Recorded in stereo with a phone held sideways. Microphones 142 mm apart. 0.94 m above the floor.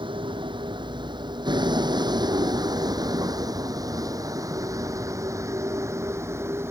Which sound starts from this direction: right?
A vehicle, at 0.0 s.